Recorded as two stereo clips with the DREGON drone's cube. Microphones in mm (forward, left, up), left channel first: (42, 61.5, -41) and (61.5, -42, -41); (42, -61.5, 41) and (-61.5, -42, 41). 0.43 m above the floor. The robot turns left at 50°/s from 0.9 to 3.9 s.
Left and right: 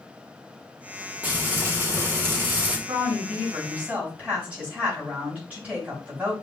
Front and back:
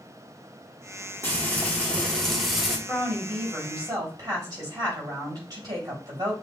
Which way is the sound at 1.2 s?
40° right.